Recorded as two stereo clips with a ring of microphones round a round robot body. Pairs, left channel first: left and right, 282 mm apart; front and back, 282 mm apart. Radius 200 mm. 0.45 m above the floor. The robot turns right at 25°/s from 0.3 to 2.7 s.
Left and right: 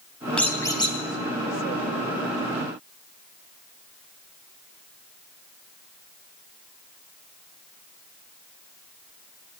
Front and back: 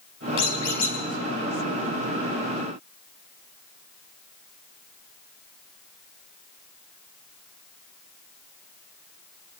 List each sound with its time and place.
0.4 s a squeak: 5° left, 3 m; by 1.0 s 20° left, 3 m